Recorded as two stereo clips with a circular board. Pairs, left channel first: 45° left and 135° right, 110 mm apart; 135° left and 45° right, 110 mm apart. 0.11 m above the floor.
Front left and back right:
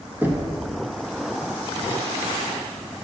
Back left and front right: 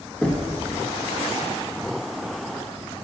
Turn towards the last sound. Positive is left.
turn(degrees=-160)